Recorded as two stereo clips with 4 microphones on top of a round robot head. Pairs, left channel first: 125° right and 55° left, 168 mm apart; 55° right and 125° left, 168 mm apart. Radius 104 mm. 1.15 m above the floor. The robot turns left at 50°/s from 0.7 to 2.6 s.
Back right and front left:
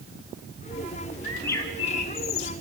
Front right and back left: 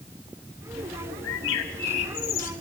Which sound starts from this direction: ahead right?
A bird, at 1.2 s.